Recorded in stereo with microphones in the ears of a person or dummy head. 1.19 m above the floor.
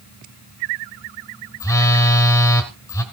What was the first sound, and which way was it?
A phone buzzing, 15° left (ahead or behind).